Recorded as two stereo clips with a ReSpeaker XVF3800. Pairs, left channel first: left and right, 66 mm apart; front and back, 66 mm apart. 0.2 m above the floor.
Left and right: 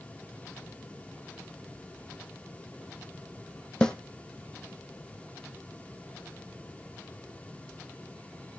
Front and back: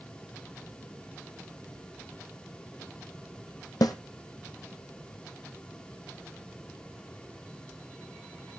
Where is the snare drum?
10° left, 1.3 m.